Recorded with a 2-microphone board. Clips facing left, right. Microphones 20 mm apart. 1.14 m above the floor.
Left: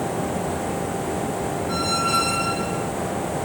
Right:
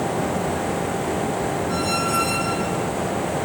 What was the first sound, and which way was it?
A squeak, 40° left (ahead or behind).